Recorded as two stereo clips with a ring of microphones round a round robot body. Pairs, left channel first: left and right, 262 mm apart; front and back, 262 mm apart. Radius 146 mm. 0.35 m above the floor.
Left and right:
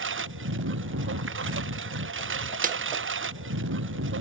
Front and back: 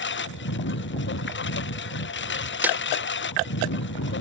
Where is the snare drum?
100° right.